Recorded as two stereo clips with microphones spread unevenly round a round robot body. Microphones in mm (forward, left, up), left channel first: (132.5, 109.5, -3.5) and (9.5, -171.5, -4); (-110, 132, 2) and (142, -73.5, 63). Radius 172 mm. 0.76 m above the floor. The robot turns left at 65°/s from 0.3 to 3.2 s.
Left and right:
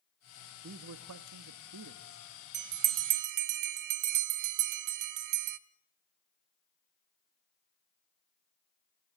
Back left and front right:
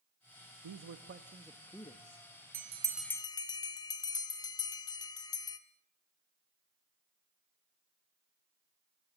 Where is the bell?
95° right, 0.7 m; by 5.6 s 135° right, 0.7 m.